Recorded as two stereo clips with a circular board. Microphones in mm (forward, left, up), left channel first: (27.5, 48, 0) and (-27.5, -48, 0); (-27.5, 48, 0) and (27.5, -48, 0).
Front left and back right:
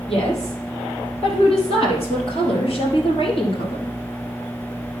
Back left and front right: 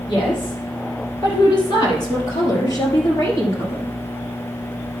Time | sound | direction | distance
0.1 | a woman speaking | 80° left | 3.5 m